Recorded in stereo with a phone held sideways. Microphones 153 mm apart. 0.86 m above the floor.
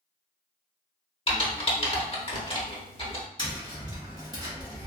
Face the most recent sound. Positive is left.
turn(degrees=-30)  # may be behind; listen again after turning